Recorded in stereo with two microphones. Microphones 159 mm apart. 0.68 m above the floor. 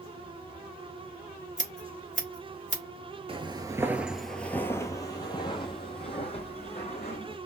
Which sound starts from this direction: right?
Footsteps, at 3.3 s.